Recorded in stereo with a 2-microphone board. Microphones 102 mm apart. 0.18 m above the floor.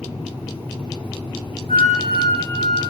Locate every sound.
1.7 s a flute: 85° left, 6.5 m